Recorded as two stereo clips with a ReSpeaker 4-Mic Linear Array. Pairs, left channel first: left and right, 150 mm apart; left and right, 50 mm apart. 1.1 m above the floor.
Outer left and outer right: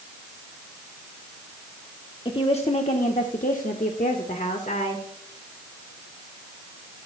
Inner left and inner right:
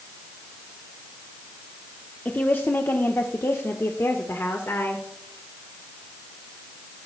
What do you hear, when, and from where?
2.2 s a woman speaking: 35° left (ahead or behind), 1.1 m; by 5.0 s 55° left (ahead or behind), 1.8 m